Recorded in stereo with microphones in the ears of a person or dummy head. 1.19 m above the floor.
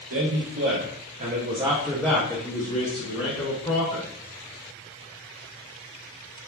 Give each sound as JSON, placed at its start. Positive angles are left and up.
{"t": 0.1, "sound": "a man speaking", "side_deg": -75, "distance_m": 1.1}